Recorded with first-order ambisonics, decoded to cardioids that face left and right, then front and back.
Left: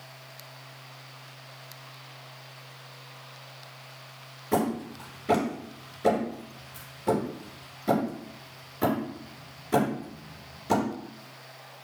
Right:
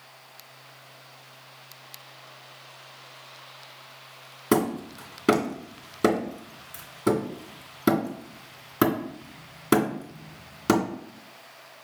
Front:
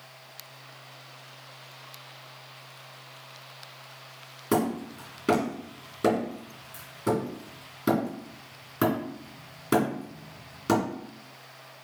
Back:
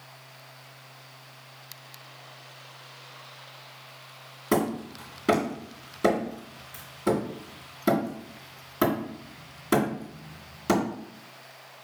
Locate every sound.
4.5 s hammering: 95° right, 2.5 m